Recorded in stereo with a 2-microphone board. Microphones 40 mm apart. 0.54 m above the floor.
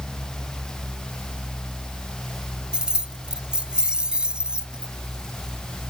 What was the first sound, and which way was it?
Keys jangling, 25° right (ahead or behind).